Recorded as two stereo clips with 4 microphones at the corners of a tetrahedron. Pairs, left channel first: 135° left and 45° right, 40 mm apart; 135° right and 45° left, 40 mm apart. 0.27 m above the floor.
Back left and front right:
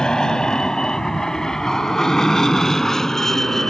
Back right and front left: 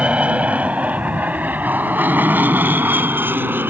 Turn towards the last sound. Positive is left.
turn(degrees=60)